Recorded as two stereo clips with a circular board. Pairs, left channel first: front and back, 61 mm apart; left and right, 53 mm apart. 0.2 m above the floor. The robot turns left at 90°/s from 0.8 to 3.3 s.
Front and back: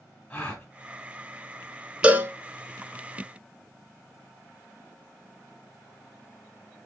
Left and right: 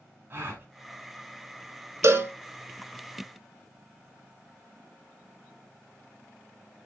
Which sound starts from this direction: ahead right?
A gasp, at 0.3 s.